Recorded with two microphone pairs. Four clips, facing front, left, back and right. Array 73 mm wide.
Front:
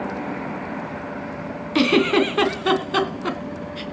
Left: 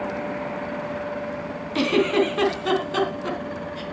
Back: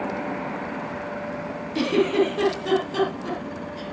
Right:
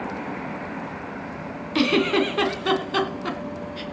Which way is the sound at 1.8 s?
Straight ahead.